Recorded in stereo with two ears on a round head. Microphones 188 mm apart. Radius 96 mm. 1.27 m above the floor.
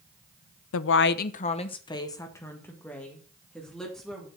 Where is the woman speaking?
75° left (ahead or behind), 0.5 m; by 4.3 s centre (ahead or behind), 2.5 m.